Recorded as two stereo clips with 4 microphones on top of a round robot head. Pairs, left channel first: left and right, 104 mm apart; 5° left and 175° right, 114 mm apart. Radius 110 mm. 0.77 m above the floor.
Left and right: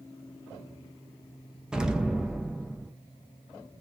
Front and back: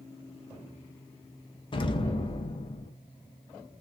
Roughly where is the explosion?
Ahead.